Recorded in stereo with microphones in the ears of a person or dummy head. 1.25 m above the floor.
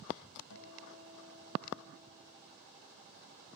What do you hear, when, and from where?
0.5 s a guitar: 80° left, 7.5 m